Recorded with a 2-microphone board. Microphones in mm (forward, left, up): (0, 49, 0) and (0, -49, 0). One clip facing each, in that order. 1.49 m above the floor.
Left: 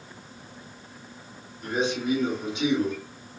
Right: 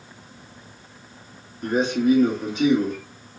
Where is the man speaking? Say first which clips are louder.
Right 7 dB; 45° right (ahead or behind), 1.2 m.